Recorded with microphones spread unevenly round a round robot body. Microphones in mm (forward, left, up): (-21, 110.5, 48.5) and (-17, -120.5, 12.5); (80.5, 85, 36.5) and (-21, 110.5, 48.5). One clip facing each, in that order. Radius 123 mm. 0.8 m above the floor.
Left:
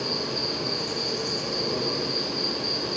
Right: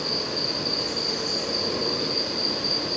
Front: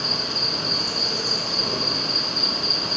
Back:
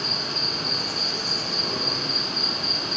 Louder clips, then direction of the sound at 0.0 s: Even, front 2 dB; 35° left.